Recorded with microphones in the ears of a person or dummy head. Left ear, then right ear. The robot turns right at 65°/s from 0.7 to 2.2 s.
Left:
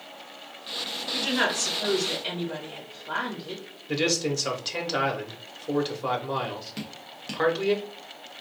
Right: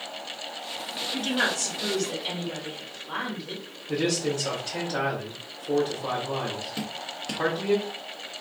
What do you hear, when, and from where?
1.1 s a woman speaking: 70° left, 2 m; by 3.6 s 140° left, 2 m
3.9 s a man speaking: 55° left (ahead or behind), 1.1 m
6.8 s dripping: 5° left (ahead or behind), 0.8 m